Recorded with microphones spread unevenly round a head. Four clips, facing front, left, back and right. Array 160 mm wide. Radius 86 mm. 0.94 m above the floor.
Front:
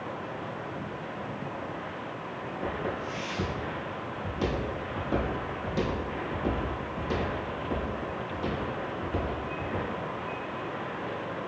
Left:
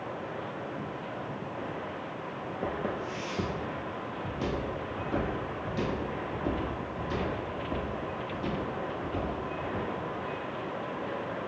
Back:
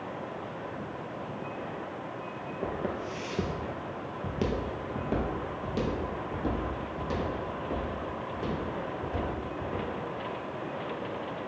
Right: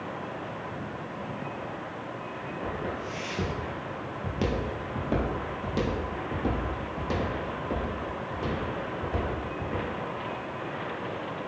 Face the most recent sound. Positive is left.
turn(degrees=-100)